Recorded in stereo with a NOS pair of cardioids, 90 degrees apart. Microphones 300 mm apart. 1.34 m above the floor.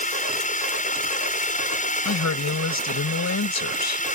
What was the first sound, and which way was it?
A drone, 25° left.